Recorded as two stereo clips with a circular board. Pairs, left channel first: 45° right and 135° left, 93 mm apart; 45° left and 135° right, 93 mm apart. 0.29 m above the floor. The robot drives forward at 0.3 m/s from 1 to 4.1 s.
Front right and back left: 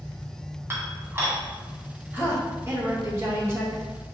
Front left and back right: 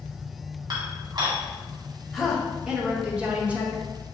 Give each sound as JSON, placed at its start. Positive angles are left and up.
{"t": 0.7, "sound": "dishes clattering", "azimuth_deg": -165, "distance_m": 1.4}
{"t": 2.1, "sound": "a woman speaking", "azimuth_deg": 140, "distance_m": 1.4}